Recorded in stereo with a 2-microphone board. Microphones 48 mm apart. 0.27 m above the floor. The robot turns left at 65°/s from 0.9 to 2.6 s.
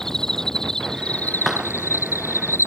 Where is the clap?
5° right (ahead or behind); by 1.7 s 20° right (ahead or behind).